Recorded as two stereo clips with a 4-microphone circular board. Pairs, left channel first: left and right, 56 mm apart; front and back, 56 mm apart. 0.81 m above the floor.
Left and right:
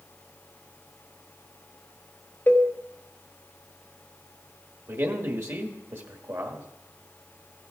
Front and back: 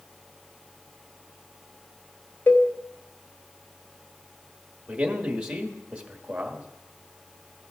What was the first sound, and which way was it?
A cowbell, 40° left.